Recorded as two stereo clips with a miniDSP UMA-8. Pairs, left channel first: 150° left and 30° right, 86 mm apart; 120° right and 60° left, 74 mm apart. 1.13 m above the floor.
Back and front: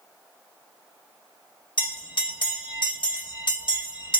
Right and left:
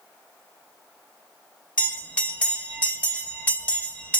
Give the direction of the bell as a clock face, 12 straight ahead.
6 o'clock.